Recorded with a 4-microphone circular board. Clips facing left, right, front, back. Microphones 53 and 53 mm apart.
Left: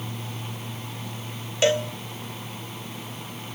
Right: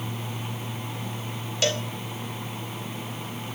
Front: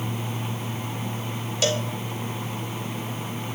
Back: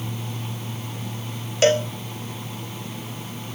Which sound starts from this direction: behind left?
A cowbell, at 1.6 s.